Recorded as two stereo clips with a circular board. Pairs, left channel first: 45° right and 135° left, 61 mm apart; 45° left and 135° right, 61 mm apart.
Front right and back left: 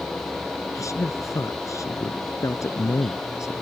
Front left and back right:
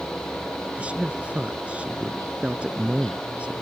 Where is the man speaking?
65° right.